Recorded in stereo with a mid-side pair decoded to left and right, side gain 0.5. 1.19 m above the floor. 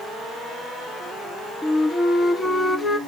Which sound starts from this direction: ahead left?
A flute, at 1.6 s.